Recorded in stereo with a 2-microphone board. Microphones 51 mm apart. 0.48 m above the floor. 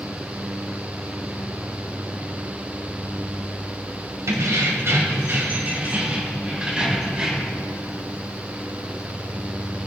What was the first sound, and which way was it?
Keys jangling, 65° right (ahead or behind).